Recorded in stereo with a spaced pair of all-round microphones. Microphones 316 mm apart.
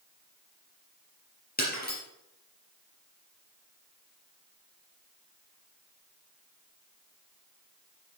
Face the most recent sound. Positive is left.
turn(degrees=25)  # may be behind; listen again after turning